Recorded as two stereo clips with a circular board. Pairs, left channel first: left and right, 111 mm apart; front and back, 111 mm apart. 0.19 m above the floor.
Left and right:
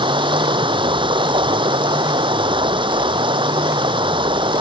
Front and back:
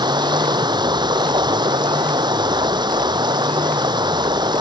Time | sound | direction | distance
0.0 | running water | 130° right | ?